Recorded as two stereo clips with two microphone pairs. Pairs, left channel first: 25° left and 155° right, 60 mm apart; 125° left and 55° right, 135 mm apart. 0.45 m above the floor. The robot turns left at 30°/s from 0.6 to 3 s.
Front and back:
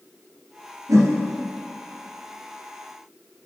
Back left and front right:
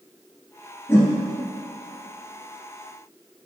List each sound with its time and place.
0.9 s a whoosh: 160° right, 1.7 m; by 1.1 s 170° right, 1.7 m